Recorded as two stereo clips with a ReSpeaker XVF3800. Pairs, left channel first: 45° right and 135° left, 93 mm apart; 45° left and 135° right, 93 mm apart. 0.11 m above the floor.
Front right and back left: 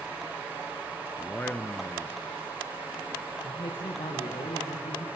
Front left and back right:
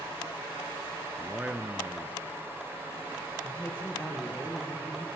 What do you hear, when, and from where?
1.2 s a man speaking: 90° right, 1.2 m
3.4 s a man speaking: 25° right, 7.5 m